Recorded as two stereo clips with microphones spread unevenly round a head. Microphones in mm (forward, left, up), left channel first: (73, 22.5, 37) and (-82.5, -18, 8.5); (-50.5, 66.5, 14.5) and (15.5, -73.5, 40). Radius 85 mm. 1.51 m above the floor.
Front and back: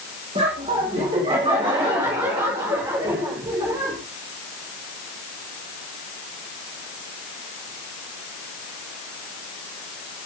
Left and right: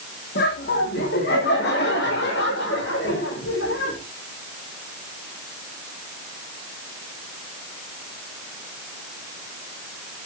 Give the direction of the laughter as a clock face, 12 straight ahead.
7 o'clock.